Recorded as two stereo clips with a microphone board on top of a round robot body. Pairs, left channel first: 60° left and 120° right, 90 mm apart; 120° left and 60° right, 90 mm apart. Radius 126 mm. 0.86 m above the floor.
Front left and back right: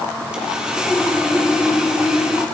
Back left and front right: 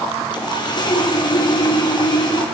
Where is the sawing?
160° left, 2.5 m.